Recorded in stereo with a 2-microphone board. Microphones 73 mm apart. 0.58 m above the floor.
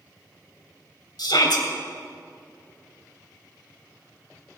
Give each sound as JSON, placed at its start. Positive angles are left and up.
{"t": 1.2, "sound": "a shout", "side_deg": 75, "distance_m": 2.5}